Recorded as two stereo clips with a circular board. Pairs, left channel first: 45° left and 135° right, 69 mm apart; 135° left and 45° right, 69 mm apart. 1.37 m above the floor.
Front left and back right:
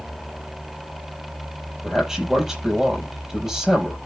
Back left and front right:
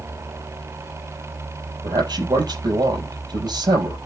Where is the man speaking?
55° right, 7 m.